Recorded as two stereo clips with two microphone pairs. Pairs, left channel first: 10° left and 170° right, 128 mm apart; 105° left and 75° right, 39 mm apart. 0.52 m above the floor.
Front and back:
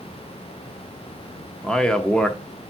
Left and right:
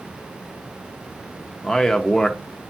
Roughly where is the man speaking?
Left.